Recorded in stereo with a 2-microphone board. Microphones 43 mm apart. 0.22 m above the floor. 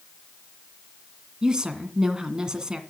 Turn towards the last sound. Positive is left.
turn(degrees=-15)  # may be behind; listen again after turning